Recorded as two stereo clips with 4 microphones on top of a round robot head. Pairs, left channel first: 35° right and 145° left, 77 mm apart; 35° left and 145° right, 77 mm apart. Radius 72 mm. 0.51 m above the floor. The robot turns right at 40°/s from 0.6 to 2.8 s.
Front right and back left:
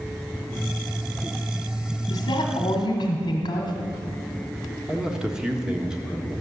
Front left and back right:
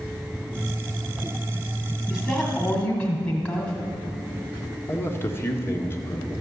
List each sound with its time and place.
2.1 s a woman speaking: 50° right, 1.6 m; by 3.7 s 20° right, 1.6 m
4.9 s a man speaking: 70° left, 1.6 m